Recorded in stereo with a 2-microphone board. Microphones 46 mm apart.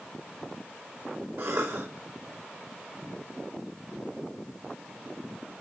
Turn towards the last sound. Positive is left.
turn(degrees=-85)